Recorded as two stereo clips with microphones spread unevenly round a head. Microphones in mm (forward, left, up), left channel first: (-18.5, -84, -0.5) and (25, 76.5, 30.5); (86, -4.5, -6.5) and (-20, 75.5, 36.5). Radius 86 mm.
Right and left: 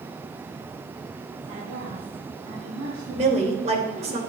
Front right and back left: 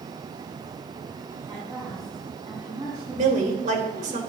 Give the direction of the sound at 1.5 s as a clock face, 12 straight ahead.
10 o'clock.